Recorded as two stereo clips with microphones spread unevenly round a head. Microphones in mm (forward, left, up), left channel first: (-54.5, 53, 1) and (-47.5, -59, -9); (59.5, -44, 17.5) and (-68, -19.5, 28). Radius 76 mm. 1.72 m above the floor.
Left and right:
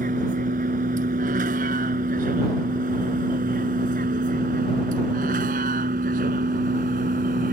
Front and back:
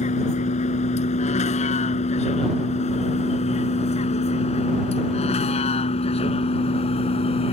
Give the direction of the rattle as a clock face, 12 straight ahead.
No rattle in this recording.